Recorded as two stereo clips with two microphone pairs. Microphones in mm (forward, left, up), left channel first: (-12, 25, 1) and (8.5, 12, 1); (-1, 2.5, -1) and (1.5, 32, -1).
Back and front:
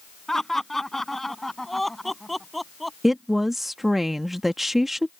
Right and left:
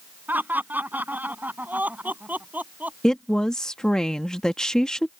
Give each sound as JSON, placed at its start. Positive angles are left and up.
{"t": 0.3, "sound": "laughter", "azimuth_deg": 80}
{"t": 3.0, "sound": "a woman speaking", "azimuth_deg": -80}